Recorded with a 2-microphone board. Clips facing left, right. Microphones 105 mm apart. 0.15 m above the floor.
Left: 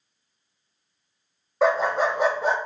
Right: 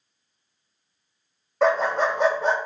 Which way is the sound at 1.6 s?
5° left (ahead or behind).